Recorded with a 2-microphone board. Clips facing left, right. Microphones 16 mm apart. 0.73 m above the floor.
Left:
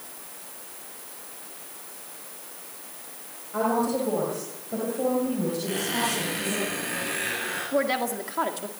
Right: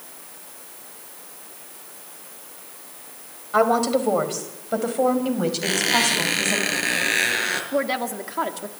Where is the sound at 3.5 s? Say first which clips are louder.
Right 6 dB; 75° right (ahead or behind), 4.5 m; by 6.6 s 50° right (ahead or behind), 6 m.